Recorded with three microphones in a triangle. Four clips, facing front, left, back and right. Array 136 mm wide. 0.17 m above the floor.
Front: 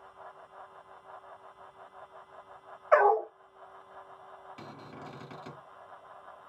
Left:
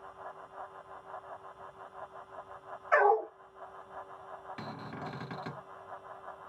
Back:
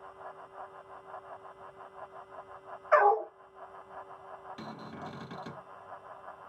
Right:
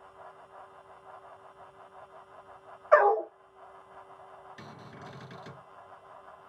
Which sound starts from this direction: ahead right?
A dog barking, at 2.9 s.